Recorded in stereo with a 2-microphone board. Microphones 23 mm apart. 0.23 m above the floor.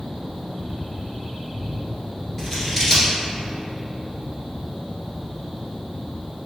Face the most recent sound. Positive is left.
turn(degrees=15)  # may be behind; listen again after turning